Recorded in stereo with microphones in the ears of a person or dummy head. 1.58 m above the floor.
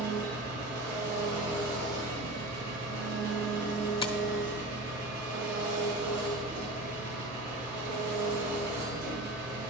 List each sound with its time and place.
0.0 s an engine running: 50° right (ahead or behind), 4 m
4.0 s tapping: 25° left (ahead or behind), 0.5 m